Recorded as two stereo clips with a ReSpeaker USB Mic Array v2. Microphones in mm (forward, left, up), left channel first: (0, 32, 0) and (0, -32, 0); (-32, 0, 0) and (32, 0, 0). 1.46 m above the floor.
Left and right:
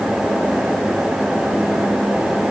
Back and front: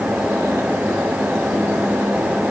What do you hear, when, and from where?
Only background noise.